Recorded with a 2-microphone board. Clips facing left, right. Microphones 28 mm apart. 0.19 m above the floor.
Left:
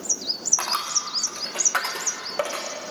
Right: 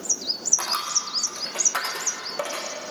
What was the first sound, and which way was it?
A dropped coin, 35° left (ahead or behind).